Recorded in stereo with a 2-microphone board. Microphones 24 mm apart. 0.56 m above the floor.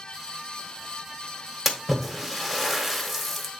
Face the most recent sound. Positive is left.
turn(degrees=0)  # may be behind; listen again after turning